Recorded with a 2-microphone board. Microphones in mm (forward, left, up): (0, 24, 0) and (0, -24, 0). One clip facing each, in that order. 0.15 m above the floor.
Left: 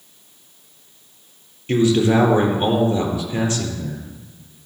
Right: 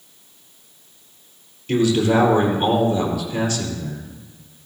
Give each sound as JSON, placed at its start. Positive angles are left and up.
{"t": 1.7, "sound": "a man speaking", "side_deg": 20, "distance_m": 3.5}